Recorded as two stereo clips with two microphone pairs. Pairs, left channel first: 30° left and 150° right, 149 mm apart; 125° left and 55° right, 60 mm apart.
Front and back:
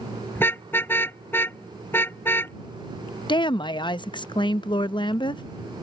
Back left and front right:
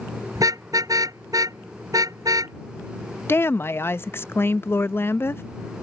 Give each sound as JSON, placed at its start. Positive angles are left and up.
{"t": 0.3, "sound": "a car horn", "azimuth_deg": -45}
{"t": 3.3, "sound": "a woman speaking", "azimuth_deg": 85}